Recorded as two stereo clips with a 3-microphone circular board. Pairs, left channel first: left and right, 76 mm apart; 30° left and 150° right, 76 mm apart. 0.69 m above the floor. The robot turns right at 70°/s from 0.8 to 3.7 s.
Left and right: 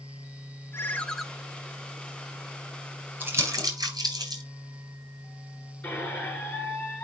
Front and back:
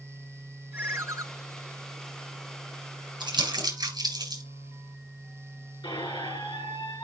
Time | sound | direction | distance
0.7 | a ringtone | 150° left | 0.9 m
3.2 | crumpling | 160° right | 4.5 m
5.8 | a squeak | 20° left | 3.5 m